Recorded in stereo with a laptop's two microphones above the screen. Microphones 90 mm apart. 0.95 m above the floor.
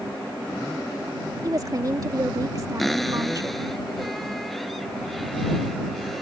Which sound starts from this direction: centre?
A cupboard door, at 2.8 s.